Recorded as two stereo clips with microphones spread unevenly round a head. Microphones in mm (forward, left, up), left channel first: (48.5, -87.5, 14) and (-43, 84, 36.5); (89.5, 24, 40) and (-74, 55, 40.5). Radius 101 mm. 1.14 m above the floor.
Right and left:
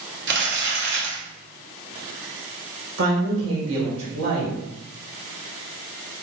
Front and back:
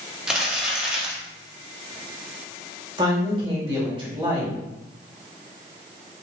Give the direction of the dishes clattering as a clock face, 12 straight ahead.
No dishes clattering in this recording.